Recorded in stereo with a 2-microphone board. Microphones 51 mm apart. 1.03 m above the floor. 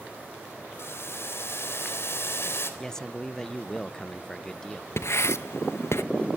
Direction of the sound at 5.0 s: 60° left (ahead or behind).